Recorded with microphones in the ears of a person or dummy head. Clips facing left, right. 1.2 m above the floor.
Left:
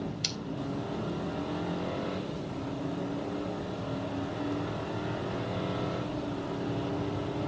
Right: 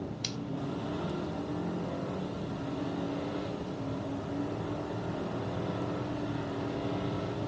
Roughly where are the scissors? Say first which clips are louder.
Even; centre.